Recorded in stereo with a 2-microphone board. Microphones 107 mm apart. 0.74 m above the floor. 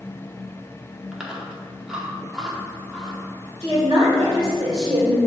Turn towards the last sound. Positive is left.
turn(degrees=-45)  # may be behind; listen again after turning